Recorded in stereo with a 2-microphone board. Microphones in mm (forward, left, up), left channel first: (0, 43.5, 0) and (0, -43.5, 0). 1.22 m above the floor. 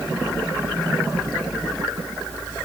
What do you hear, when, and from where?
Only background noise.